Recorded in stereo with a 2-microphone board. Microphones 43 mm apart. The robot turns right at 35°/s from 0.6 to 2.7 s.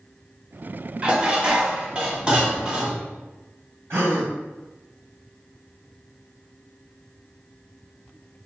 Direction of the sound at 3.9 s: 65° right (ahead or behind).